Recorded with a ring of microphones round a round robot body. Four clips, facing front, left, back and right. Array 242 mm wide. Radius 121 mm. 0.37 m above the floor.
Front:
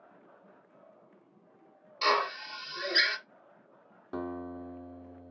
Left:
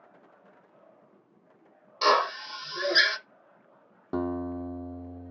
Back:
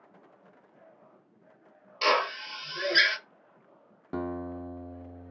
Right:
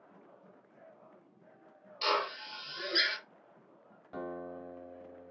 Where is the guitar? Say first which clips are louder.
Left 10 dB, back 3 dB; 115° left, 0.9 m.